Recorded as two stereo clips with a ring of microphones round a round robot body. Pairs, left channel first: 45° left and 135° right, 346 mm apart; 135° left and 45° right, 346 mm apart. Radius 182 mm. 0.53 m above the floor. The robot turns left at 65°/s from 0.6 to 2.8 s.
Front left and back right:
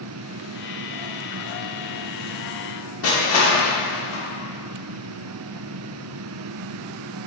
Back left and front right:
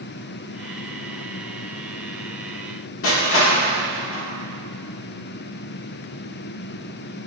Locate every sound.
3.0 s crushing: 90° left, 1.2 m